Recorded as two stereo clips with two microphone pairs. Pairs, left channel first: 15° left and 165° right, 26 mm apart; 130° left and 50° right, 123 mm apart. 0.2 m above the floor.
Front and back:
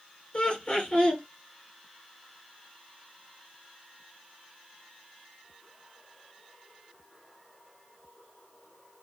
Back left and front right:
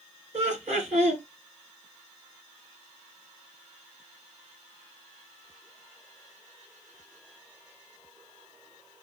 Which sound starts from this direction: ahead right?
Laughter, at 0.3 s.